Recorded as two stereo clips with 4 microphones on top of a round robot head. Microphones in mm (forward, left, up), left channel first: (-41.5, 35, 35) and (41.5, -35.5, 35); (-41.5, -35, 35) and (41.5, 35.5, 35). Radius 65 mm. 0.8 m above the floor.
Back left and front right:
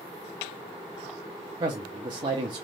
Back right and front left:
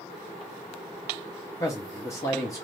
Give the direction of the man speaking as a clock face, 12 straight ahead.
3 o'clock.